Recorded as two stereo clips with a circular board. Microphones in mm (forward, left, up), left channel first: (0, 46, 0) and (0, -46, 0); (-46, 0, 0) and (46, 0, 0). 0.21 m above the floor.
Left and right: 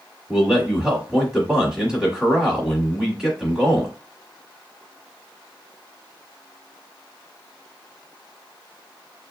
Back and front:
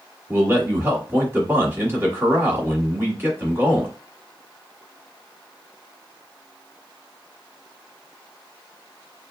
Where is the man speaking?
20° right, 1.2 m.